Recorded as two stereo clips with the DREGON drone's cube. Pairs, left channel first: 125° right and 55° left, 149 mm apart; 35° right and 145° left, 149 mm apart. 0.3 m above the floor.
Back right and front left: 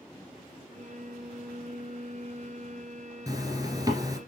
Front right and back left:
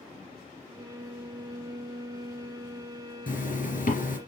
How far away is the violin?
About 1.2 m.